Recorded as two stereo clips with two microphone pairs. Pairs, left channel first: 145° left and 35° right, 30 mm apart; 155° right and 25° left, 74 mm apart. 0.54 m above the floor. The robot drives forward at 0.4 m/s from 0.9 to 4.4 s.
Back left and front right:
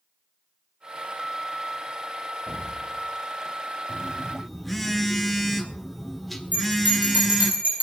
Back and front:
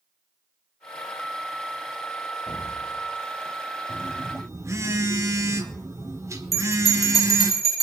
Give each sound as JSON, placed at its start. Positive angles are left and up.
{"t": 2.5, "sound": "an explosion", "azimuth_deg": -120, "distance_m": 1.6}
{"t": 3.9, "sound": "a phone buzzing", "azimuth_deg": 50, "distance_m": 1.4}
{"t": 6.5, "sound": "a bell", "azimuth_deg": -65, "distance_m": 8.5}